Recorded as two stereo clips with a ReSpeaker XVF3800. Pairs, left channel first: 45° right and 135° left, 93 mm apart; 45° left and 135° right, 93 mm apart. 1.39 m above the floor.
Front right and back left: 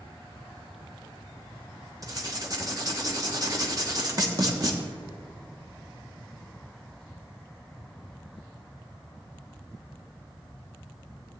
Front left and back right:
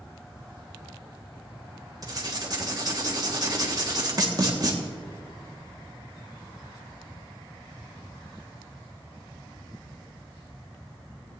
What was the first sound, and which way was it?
Writing, straight behind.